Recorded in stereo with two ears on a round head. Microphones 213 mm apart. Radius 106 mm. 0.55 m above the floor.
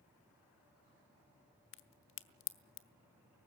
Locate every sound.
1.7 s a crack: 55° left (ahead or behind), 0.9 m